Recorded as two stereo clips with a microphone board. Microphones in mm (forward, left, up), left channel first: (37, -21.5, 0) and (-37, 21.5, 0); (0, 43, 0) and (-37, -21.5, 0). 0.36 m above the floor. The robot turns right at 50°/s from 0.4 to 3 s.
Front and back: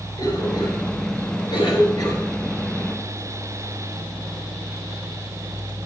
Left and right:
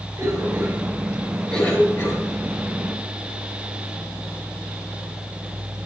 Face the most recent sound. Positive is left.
turn(degrees=60)